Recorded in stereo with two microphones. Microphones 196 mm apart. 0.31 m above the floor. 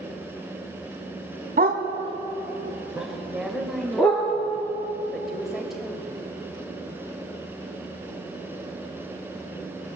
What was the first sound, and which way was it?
A dog barking, 50° right (ahead or behind).